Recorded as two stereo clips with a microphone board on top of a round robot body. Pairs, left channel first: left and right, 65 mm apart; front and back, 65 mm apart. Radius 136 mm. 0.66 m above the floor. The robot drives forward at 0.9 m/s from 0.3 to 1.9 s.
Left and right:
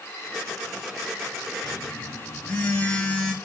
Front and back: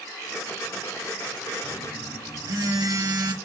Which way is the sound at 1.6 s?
165° left.